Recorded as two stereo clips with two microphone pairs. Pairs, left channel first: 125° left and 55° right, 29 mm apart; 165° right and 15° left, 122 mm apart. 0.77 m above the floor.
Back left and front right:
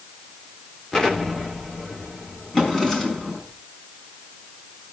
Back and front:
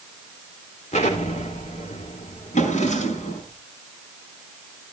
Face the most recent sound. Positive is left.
turn(degrees=-160)